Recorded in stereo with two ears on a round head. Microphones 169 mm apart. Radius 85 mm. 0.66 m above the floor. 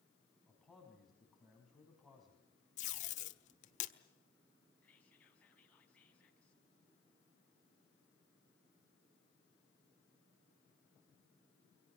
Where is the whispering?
5° left (ahead or behind), 4.5 m.